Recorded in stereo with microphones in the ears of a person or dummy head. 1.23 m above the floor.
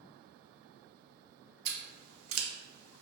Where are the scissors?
85° right, 0.5 m.